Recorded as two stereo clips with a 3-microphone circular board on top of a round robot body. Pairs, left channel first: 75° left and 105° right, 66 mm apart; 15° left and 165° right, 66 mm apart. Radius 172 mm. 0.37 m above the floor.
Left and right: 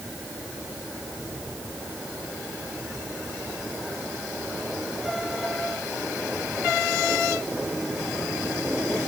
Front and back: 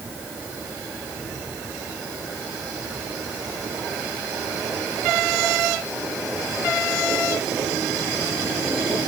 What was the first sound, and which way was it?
Only background noise.